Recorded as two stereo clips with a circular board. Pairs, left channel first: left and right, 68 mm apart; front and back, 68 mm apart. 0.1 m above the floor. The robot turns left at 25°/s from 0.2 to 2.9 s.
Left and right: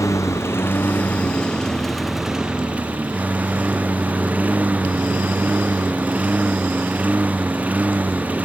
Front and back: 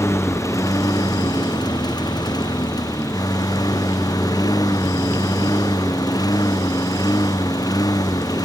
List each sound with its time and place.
0.0 s a lawn mower: 45° left; by 8.4 s 20° right